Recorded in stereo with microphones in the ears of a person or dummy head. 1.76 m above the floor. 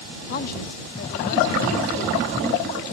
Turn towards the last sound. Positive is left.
turn(degrees=55)  # may be behind; listen again after turning